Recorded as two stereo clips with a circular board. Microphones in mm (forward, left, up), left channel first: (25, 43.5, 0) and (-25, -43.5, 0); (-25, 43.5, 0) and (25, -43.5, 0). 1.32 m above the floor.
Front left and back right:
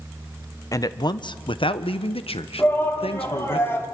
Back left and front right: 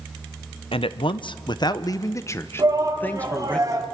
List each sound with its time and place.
0.7 s a man speaking: 110° left, 0.9 m; by 3.6 s 40° left, 1.6 m
2.6 s a shout: 5° right, 3 m